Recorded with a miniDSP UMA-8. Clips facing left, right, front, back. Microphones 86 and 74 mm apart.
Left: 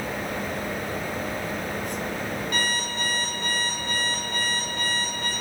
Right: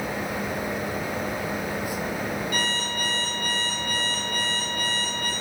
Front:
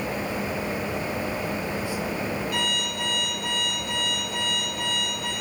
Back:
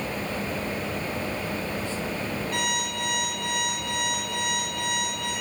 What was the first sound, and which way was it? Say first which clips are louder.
An alarm clock: even, even; 135° left.